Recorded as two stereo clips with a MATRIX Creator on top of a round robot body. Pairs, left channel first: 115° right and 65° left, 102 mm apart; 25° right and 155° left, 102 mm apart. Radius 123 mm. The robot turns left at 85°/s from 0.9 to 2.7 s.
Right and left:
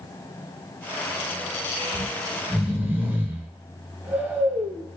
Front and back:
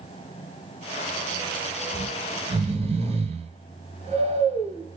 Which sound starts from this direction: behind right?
Snoring, at 1.9 s.